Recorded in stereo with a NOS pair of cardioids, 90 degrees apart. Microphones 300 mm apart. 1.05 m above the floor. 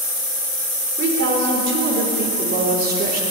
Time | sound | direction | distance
1.0 | a woman speaking | 50° right | 4 m